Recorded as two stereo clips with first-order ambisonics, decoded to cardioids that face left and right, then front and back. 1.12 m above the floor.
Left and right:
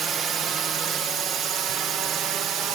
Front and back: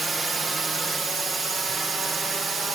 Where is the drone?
115° right.